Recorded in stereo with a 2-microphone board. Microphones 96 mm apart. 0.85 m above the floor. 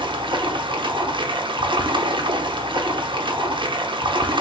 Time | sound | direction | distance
0.0 | running water | 55° right (ahead or behind) | 0.8 m